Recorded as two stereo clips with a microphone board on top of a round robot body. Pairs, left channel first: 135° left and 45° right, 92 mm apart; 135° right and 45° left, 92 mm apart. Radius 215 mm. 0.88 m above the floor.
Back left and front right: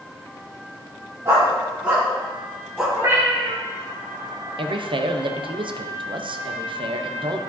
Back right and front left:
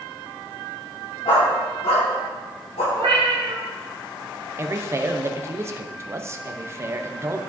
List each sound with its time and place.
1.2 s a dog barking: 105° right, 2 m; by 2.9 s 135° right, 2.5 m
3.0 s a cat meowing: 20° left, 1.6 m
4.6 s a man speaking: 15° right, 0.8 m